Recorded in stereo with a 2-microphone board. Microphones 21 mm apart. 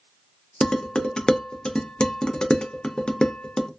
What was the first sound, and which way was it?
Dishes clattering, 40° left (ahead or behind).